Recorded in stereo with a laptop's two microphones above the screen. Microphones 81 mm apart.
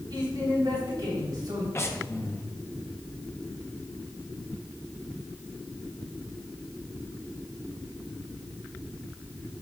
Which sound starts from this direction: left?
Breathing, at 1.8 s.